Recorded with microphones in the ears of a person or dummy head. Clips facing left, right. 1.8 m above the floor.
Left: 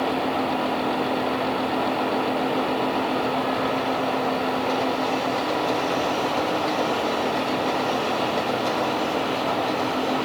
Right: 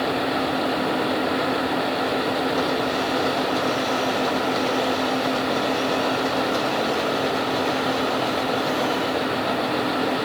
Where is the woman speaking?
No woman speaking in this recording.